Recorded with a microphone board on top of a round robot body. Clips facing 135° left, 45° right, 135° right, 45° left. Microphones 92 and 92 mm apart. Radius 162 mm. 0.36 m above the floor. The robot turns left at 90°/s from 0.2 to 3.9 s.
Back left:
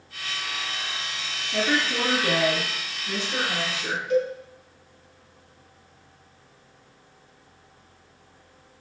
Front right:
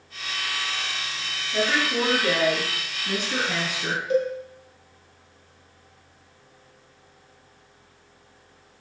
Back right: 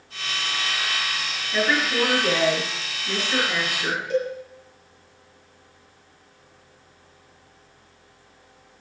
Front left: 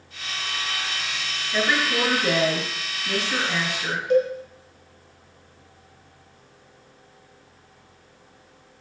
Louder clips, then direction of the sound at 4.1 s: Even, front left 6 dB; 5° left.